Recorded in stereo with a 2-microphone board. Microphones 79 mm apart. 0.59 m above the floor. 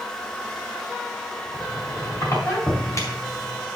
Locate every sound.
1.5 s a squeak: 40° left (ahead or behind), 3.5 m